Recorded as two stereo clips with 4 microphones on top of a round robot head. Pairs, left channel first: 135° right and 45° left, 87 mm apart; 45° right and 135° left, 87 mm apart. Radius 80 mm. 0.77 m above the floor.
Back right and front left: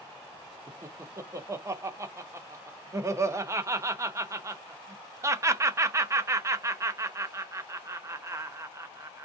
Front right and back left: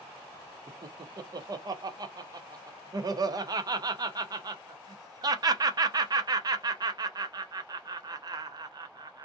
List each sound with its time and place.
0.7 s laughter: 100° left, 0.6 m